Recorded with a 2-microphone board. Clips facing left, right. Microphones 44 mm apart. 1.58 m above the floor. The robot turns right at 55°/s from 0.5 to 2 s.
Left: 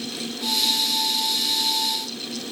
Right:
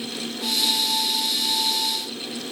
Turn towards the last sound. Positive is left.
No sound to turn to.